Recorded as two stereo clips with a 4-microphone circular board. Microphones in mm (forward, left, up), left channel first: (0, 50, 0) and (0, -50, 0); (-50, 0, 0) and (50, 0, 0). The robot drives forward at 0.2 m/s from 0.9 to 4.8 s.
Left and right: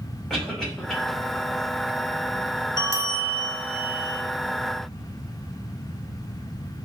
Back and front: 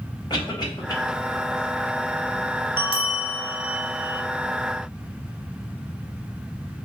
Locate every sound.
0.3 s a cough: 175° left, 1.8 m
2.8 s a bell: 150° right, 0.6 m; by 4.2 s 160° right, 0.9 m